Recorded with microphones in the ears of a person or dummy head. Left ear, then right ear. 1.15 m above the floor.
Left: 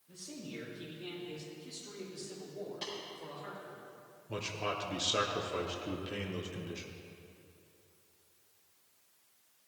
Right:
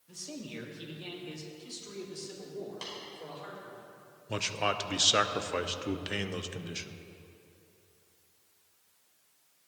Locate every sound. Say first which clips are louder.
0.1 s a man speaking: right 4 dB; 70° right (ahead or behind), 1.5 m; by 3.8 s 65° right (ahead or behind), 3.5 m
2.8 s tapping: left 2 dB; 40° right (ahead or behind), 4 m
4.3 s a man speaking: right 6 dB; 50° right (ahead or behind), 0.8 m